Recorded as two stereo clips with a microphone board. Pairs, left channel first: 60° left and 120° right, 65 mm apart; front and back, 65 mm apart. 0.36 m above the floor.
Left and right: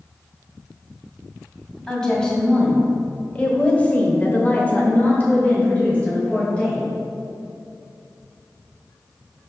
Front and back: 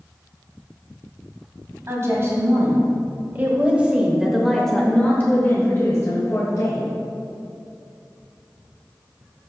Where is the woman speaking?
140° left, 2 m; by 6.9 s 10° right, 1.6 m.